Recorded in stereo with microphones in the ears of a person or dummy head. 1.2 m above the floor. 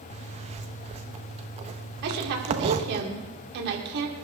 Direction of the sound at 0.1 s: 35° right (ahead or behind).